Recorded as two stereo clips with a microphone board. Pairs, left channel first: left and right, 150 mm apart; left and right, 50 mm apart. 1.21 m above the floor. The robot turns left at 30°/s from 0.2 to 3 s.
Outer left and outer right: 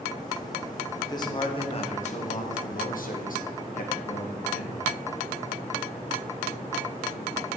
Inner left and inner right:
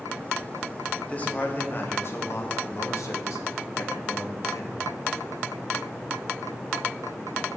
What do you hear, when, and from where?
1.0 s a man speaking: 155° left, 1.1 m; by 4.9 s 95° left, 1.1 m